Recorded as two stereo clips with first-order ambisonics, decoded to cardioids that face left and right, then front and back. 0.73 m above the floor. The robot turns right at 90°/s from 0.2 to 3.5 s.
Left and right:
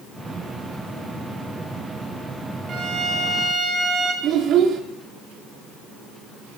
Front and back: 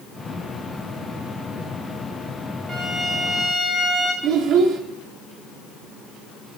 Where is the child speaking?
145° right, 0.5 m.